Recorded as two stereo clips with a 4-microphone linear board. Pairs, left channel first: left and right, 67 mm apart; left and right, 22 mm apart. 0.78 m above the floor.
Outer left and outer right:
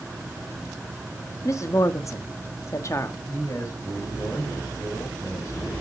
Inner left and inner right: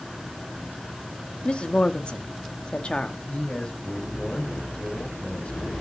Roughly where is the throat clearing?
No throat clearing in this recording.